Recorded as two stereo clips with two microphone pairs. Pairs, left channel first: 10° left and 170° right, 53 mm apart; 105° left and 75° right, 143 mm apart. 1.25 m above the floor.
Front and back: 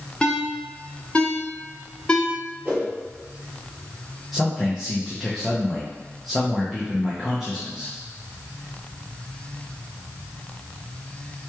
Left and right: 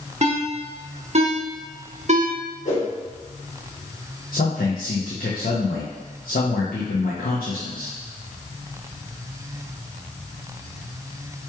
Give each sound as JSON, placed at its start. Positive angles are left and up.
{"t": 0.2, "sound": "a ringtone", "azimuth_deg": -55, "distance_m": 0.7}
{"t": 2.6, "sound": "a whoosh", "azimuth_deg": 125, "distance_m": 1.7}
{"t": 4.3, "sound": "a man speaking", "azimuth_deg": 100, "distance_m": 0.7}